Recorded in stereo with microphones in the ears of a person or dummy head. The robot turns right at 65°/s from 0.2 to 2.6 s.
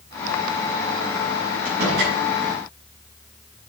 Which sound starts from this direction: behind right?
A door slam, at 1.6 s.